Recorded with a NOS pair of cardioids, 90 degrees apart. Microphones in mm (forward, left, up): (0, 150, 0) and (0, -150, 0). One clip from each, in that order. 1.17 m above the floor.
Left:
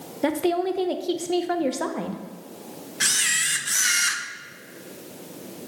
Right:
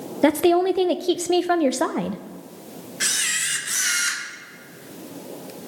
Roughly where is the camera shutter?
Ahead.